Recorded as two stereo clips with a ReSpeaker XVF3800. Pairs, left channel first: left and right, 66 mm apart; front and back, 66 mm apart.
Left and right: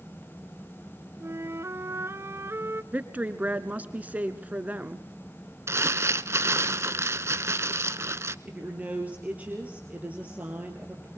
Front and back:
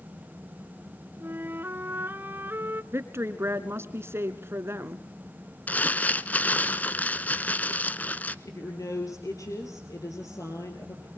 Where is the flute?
130° right, 0.7 m.